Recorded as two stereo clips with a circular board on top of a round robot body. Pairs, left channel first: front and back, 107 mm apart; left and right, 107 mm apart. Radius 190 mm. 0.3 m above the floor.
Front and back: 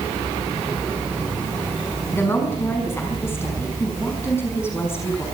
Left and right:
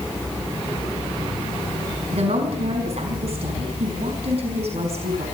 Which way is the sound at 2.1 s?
70° right.